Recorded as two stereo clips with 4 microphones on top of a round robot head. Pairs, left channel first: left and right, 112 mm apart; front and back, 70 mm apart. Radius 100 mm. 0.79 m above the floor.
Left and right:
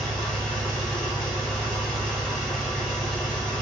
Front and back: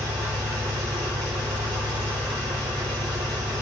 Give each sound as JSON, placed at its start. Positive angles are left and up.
{"t": 0.0, "sound": "an engine running", "azimuth_deg": 180, "distance_m": 1.2}